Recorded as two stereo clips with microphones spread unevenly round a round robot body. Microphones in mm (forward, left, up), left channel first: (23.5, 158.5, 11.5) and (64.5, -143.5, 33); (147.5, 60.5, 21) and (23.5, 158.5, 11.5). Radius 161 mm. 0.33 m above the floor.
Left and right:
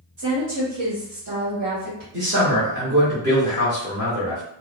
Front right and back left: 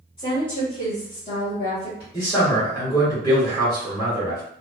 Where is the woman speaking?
105° right, 1.0 m; by 2.0 s 65° right, 1.7 m.